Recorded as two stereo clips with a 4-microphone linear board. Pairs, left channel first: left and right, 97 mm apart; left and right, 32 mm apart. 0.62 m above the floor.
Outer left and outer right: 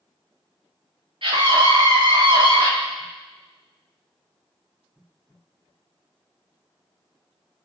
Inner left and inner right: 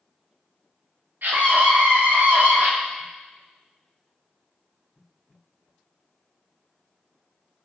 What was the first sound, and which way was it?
A scream, 65° right (ahead or behind).